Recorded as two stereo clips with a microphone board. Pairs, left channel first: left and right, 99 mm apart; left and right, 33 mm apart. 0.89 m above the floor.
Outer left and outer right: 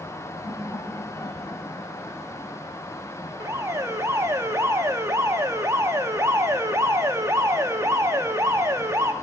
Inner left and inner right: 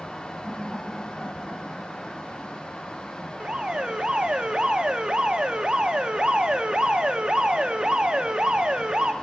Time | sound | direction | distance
0.4 | laughter | 35° left (ahead or behind) | 2.5 m
3.4 | an alarm | 30° right (ahead or behind) | 0.8 m